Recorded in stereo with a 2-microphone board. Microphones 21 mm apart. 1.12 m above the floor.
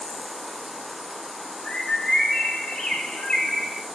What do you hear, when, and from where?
1.6 s a bird: 50° left (ahead or behind), 1.4 m